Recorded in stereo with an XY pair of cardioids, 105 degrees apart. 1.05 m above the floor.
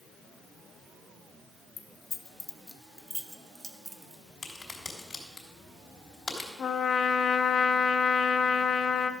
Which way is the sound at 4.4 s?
30° left.